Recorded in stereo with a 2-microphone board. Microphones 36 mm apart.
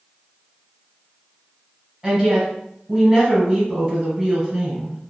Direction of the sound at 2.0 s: 20° right (ahead or behind).